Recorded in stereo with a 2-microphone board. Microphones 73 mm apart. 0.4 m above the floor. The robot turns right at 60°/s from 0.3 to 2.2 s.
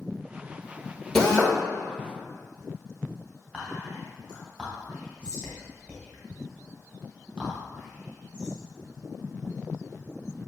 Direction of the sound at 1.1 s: 5° left (ahead or behind).